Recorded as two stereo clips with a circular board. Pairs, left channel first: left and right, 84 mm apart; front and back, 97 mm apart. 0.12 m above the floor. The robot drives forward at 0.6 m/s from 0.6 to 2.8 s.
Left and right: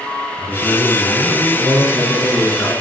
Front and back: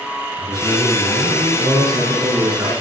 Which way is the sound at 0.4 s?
145° left.